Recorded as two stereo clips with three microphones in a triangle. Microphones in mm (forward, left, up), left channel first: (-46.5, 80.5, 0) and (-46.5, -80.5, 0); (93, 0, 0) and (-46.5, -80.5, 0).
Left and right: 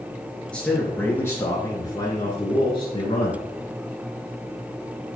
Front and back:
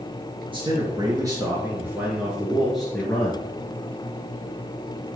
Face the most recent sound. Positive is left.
turn(degrees=105)